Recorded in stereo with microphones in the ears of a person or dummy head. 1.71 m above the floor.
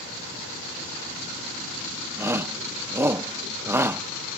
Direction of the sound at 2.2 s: 20° right (ahead or behind).